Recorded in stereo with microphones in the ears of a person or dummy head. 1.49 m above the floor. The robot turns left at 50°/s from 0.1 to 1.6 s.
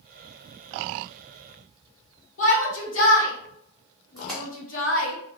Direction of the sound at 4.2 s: Centre (ahead or behind).